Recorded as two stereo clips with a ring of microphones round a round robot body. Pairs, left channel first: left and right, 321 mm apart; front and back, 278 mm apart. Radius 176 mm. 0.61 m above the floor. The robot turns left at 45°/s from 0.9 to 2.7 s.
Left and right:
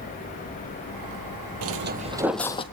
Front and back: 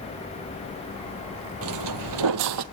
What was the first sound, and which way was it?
Footsteps, 130° right.